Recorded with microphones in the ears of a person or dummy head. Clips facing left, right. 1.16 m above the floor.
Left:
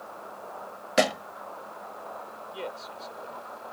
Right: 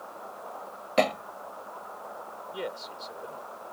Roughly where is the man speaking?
Centre.